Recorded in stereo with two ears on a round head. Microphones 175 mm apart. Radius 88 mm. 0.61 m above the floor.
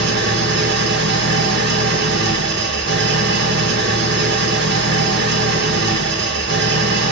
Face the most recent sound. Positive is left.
turn(degrees=-60)  # may be behind; listen again after turning